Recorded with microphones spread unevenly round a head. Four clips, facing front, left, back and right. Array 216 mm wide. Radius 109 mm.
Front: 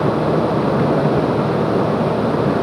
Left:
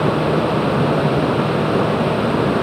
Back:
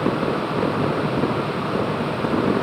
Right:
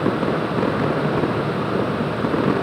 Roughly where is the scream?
No scream in this recording.